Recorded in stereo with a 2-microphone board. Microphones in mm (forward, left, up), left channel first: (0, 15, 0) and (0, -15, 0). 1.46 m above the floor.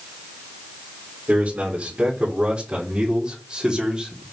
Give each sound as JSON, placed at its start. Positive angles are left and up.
{"t": 1.3, "sound": "a man speaking", "side_deg": -55, "distance_m": 4.0}